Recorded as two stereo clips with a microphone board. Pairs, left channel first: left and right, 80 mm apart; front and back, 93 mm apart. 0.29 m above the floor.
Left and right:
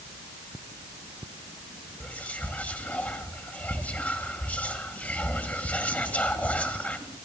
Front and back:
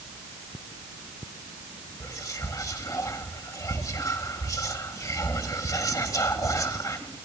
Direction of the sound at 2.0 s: 30° left.